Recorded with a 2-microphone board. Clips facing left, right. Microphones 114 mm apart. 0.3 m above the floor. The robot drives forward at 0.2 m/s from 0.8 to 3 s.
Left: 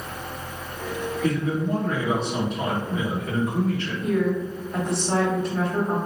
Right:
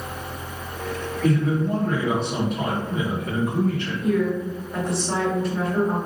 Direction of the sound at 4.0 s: 5° right (ahead or behind).